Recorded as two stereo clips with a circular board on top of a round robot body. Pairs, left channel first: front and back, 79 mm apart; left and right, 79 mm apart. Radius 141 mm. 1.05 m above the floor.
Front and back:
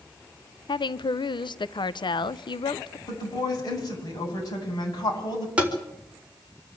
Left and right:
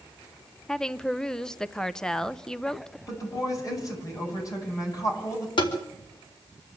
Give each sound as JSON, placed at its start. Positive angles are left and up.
{"t": 0.7, "sound": "a woman speaking", "azimuth_deg": 5, "distance_m": 0.8}
{"t": 3.1, "sound": "a woman speaking", "azimuth_deg": 40, "distance_m": 9.5}
{"t": 5.6, "sound": "tapping", "azimuth_deg": 105, "distance_m": 4.5}